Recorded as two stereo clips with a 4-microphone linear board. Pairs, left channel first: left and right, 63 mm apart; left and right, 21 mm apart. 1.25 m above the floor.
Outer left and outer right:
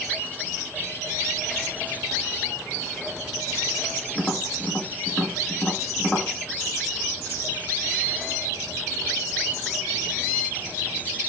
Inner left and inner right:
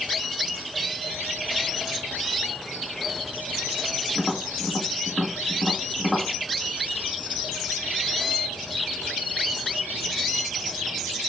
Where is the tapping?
30° left (ahead or behind), 1.2 m.